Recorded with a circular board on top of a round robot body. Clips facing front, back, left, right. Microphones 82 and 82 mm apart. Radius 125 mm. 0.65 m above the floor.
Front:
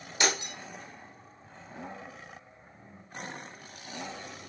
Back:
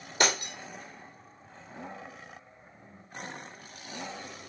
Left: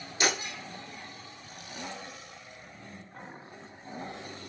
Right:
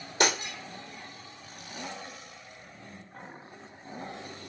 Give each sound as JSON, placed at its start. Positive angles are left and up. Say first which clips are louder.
{"t": 0.2, "sound": "breaking glass", "louder": "back 2 dB, right 3 dB", "azimuth_deg": -135, "distance_m": 3.5}